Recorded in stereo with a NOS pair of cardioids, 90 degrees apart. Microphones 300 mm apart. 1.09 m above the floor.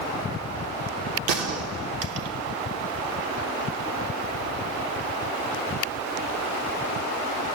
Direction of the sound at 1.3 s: 60° right.